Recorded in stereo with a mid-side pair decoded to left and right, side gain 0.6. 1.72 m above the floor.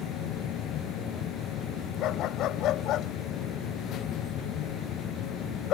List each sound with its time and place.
0.0 s a machine running: 60° left
2.0 s a dog barking: 60° left